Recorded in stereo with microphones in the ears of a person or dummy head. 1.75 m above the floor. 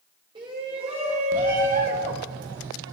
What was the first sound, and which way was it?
A shout, 25° right (ahead or behind).